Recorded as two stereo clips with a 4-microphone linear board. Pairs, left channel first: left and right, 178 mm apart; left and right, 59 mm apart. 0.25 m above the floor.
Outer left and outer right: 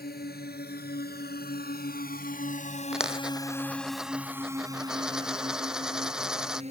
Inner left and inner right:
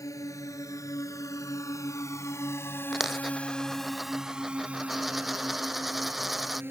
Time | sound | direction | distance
0.0 | a drone | 60° left (ahead or behind) | ?
2.9 | a dropped coin | 5° right (ahead or behind) | ?